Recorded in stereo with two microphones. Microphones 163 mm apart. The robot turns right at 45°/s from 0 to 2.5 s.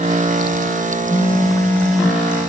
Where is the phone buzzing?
140° left, 1.3 m; by 2.2 s 170° right, 1.3 m.